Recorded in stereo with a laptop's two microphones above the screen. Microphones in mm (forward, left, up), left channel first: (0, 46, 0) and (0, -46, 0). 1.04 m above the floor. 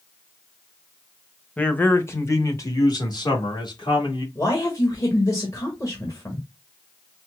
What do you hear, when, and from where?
1.6 s a man speaking: 15° left (ahead or behind), 1.0 m; by 4.2 s 60° left (ahead or behind), 2 m
4.3 s a man speaking: 35° left (ahead or behind), 1.6 m